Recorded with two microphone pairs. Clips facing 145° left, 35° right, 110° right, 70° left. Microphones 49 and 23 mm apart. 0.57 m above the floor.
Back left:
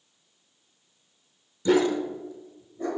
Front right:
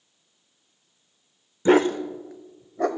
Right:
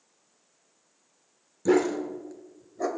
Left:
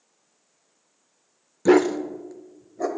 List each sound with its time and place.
1.6 s a dog barking: 15° left, 0.7 m; by 2.9 s 20° right, 1.2 m